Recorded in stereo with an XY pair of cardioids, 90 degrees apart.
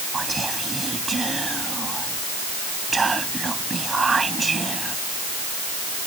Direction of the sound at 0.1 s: 30° right.